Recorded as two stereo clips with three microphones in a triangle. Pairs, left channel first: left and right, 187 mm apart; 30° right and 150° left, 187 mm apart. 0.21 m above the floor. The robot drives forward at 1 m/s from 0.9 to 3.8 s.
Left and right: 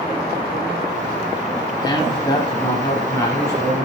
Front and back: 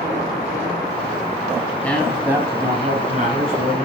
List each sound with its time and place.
1.8 s a man speaking: 40° left, 1.1 m; by 3.8 s 165° left, 1.8 m